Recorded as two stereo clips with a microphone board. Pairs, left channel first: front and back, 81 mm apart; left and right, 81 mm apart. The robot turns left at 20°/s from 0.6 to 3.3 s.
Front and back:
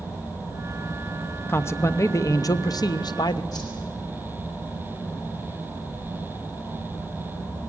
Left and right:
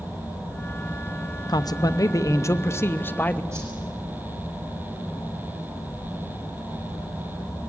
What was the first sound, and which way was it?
A man speaking, 60° left.